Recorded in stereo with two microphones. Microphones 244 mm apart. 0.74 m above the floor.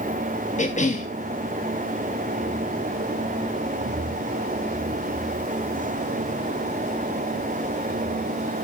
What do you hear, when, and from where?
0.6 s a cough: 30° left (ahead or behind), 0.8 m